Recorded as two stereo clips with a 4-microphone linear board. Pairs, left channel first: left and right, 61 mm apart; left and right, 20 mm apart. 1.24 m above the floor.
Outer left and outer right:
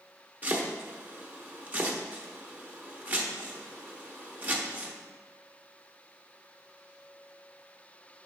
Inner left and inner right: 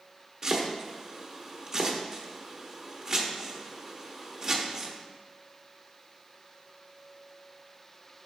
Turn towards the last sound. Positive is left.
turn(degrees=-25)  # may be behind; listen again after turning